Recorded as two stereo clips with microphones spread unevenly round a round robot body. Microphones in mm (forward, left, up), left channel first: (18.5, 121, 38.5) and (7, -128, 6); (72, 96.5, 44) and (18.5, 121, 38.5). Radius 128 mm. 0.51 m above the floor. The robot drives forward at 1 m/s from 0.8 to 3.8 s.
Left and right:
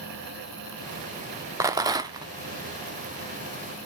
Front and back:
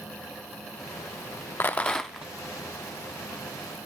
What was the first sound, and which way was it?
A rattle, 45° right.